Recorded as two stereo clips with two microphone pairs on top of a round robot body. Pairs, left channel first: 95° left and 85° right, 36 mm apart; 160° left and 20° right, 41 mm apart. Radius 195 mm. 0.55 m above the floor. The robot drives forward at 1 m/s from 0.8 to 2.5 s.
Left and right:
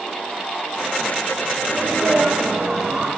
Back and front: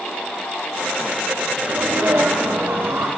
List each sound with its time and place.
1.6 s a sneeze: 20° right, 7.5 m; by 3.1 s 25° right, 6.5 m